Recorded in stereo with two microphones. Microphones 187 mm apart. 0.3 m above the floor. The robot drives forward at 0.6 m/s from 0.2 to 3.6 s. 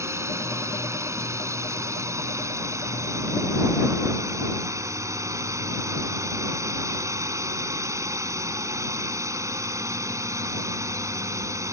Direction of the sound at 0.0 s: 15° right (ahead or behind).